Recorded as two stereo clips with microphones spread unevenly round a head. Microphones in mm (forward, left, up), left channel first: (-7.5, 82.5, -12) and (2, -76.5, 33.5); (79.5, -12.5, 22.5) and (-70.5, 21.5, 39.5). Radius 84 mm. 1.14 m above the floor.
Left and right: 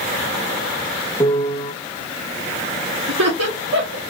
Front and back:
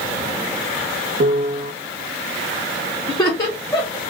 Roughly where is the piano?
Behind left.